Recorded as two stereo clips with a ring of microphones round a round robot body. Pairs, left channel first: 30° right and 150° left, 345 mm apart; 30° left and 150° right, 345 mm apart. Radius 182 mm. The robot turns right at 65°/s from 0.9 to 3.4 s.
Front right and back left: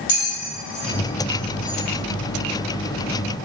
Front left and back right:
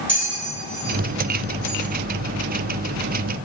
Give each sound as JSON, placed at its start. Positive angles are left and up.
{"t": 0.1, "sound": "a bell", "azimuth_deg": -55, "distance_m": 0.7}